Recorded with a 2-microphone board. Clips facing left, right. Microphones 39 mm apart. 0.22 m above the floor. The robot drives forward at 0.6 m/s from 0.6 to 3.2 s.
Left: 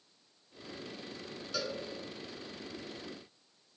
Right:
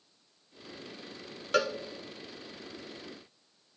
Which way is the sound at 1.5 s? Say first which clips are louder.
Right 10 dB; 55° right (ahead or behind).